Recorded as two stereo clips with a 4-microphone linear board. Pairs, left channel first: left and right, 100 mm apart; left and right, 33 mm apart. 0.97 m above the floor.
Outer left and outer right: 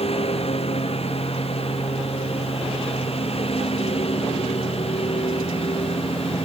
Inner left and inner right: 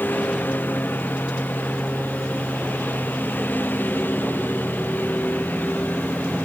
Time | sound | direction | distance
0.0 | a lawn mower | 75° left (ahead or behind) | ?